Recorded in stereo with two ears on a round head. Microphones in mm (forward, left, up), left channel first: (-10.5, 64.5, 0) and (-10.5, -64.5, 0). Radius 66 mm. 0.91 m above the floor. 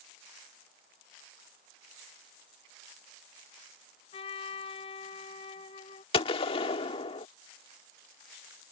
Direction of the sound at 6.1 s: 40° left (ahead or behind).